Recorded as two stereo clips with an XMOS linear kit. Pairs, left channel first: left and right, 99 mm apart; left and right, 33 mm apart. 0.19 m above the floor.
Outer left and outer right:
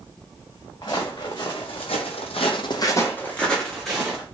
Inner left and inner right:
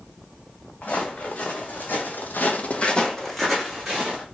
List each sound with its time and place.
0.8 s footsteps: 50° left (ahead or behind), 1.2 m; by 4.2 s 5° right (ahead or behind), 1.2 m